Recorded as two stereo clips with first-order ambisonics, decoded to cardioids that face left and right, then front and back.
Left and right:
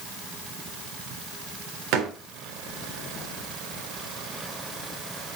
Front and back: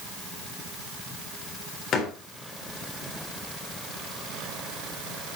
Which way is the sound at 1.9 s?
60° right.